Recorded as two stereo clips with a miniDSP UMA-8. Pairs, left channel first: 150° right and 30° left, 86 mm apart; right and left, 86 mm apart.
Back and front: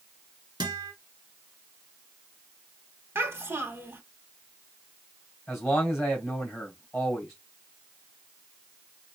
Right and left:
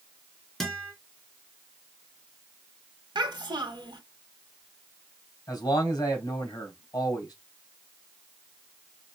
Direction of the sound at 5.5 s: 55° right.